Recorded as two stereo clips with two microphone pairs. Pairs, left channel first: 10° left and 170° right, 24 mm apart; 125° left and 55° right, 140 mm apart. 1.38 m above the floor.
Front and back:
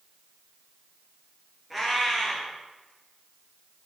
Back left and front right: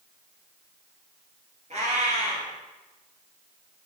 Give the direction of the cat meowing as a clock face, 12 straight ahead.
3 o'clock.